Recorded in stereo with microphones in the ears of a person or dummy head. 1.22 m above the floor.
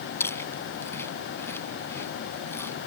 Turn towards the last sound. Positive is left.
turn(degrees=15)  # may be behind; listen again after turning